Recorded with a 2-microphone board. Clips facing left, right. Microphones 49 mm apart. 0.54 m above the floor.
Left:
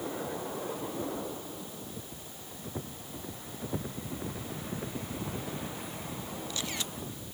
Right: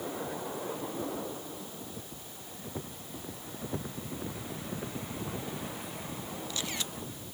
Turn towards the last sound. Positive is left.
No sound to turn to.